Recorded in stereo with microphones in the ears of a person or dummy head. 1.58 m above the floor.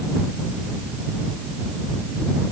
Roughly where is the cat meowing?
No cat meowing in this recording.